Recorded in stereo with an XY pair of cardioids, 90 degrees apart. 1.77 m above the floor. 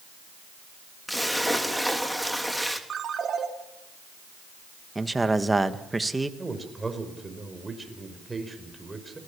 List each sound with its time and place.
1.1 s a splash: straight ahead, 3 m
2.9 s a ringtone: 55° right, 3.5 m
5.0 s a man speaking: 15° right, 2 m
6.4 s a man speaking: 20° right, 6 m